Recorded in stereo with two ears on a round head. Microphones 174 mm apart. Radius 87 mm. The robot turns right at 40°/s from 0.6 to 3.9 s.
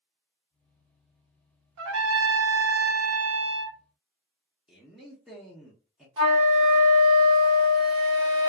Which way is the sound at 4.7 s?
Centre (ahead or behind).